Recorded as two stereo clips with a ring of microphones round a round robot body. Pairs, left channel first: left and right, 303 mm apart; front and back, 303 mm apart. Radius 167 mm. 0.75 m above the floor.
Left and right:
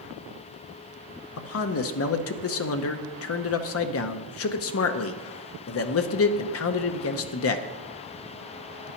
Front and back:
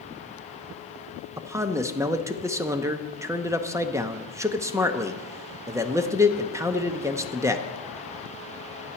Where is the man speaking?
100° left, 0.8 m.